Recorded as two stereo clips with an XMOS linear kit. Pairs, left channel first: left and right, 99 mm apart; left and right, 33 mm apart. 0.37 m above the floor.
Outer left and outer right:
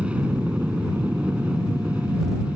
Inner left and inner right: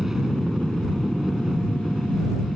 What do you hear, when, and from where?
0.0 s an aircraft: 10° right (ahead or behind)